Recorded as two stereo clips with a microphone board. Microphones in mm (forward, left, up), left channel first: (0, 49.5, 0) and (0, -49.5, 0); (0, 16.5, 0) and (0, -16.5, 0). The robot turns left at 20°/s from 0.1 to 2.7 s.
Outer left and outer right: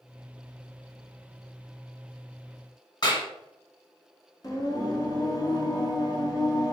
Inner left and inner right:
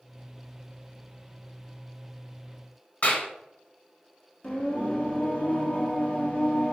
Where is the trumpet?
I don't hear a trumpet.